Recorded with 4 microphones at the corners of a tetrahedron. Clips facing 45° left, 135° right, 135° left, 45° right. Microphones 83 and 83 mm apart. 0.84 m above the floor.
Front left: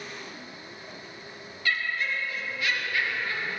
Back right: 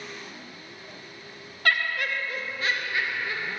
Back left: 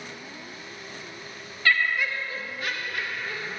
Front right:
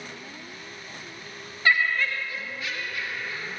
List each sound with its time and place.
1.6 s laughter: 115° right, 0.7 m; by 3.6 s 155° left, 1.7 m